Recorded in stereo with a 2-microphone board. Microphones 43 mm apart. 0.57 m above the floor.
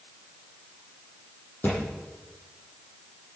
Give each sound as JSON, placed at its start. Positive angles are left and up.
{"t": 1.6, "sound": "a thud", "side_deg": 45, "distance_m": 7.5}